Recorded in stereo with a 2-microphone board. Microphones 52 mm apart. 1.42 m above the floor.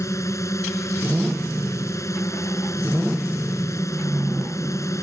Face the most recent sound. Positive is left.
turn(degrees=75)  # may be behind; listen again after turning